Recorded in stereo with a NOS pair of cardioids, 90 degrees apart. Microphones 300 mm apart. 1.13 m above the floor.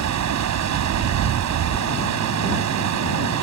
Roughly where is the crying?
No crying in this recording.